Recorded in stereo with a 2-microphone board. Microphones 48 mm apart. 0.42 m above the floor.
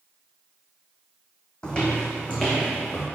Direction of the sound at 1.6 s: 20° left (ahead or behind).